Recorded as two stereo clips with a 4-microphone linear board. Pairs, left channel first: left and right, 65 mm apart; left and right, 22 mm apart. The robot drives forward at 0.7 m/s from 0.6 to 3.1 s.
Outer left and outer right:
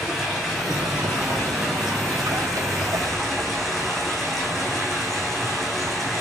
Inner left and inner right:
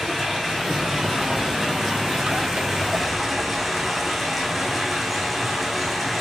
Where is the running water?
Centre (ahead or behind), 5.5 m; by 6.2 s 5° left (ahead or behind), 4 m.